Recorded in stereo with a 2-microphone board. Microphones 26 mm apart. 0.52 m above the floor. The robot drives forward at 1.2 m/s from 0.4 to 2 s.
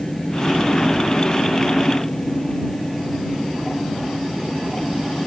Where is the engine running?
30° left (ahead or behind); by 5.3 s 25° left (ahead or behind).